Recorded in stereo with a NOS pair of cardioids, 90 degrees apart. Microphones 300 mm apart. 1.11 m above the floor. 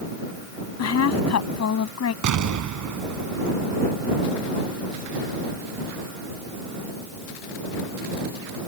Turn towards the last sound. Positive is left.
turn(degrees=-65)